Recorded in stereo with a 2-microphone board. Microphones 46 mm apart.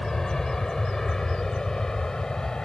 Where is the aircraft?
10° left (ahead or behind); by 2.6 s 15° left (ahead or behind).